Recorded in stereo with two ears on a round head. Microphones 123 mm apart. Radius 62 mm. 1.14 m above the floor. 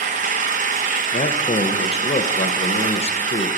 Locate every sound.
0.0 s an engine running: 55° right (ahead or behind), 0.8 m
1.1 s a man speaking: 45° left (ahead or behind), 0.8 m